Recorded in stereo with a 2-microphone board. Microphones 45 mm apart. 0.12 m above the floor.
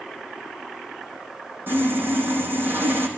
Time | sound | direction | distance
1.7 | sawing | 45° right (ahead or behind) | 3.5 m